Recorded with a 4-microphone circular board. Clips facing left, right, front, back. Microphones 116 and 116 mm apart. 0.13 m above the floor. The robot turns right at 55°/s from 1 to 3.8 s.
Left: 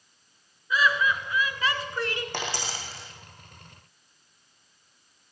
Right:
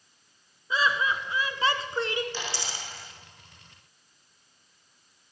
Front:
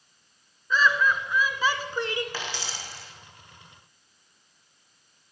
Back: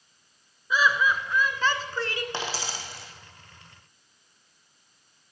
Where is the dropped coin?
115° left, 3 m; by 3.1 s 155° left, 3 m.